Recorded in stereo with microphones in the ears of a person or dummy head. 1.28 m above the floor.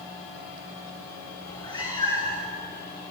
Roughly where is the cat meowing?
Left.